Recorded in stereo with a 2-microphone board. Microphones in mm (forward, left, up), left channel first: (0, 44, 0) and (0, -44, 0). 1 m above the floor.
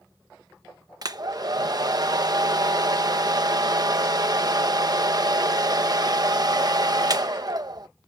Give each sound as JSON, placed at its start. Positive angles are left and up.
{"t": 1.0, "sound": "a hair dryer", "side_deg": -45}